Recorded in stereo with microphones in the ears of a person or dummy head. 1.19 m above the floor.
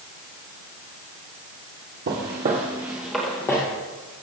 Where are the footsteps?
45° right (ahead or behind), 1.6 m; by 3.6 s 20° left (ahead or behind), 1.8 m.